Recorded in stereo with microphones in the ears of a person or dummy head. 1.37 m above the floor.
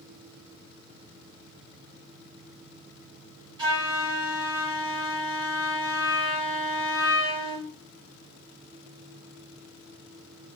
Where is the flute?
20° right (ahead or behind), 1.4 m.